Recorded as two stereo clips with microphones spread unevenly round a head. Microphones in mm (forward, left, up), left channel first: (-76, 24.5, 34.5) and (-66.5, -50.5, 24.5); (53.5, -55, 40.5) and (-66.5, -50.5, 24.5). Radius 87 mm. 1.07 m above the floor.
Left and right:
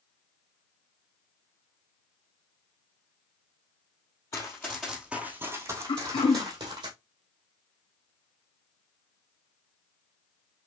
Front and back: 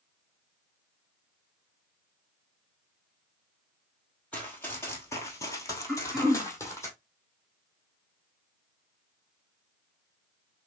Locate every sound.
4.3 s running footsteps: 65° left, 1.3 m; by 6.9 s 60° right, 2 m
5.9 s throat clearing: 90° left, 1.2 m